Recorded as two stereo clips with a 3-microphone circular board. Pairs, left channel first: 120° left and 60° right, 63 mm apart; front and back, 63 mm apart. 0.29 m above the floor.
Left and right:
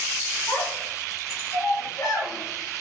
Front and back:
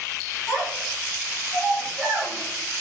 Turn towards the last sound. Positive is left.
turn(degrees=125)